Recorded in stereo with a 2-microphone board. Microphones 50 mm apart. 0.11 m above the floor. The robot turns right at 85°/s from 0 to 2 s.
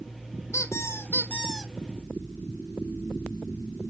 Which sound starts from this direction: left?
A squeak, at 0.5 s.